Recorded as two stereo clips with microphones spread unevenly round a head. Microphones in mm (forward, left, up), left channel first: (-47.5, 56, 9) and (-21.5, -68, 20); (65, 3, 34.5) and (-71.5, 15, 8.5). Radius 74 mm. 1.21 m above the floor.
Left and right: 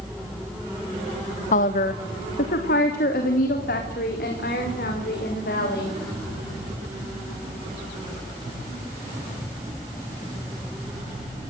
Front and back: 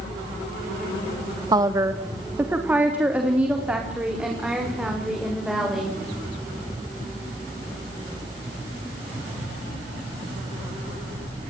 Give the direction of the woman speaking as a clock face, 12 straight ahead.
8 o'clock.